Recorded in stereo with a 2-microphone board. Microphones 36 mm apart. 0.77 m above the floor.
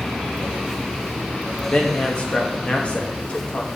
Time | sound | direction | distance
1.7 | a man speaking | 35° left (ahead or behind) | 1.0 m